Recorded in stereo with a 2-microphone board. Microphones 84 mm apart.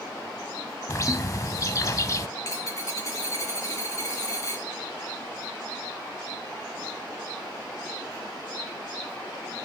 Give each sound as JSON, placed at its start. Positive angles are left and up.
{"t": 0.9, "sound": "a bird", "side_deg": 40, "distance_m": 0.5}
{"t": 2.4, "sound": "a dropped coin", "side_deg": 40, "distance_m": 2.5}